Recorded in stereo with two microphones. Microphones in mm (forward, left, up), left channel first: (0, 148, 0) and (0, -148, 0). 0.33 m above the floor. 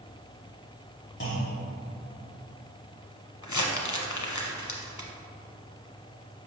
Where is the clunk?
45° left (ahead or behind), 1.3 m.